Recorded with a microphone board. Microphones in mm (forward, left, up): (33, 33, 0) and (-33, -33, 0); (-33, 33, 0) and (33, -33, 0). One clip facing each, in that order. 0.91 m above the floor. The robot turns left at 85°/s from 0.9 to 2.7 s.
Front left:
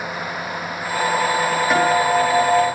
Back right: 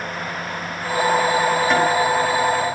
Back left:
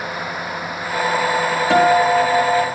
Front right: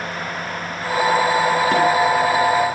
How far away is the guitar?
About 6.5 m.